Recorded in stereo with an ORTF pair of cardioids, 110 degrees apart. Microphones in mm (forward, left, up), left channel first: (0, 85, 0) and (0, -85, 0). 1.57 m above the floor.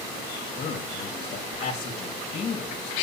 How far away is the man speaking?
About 2.0 m.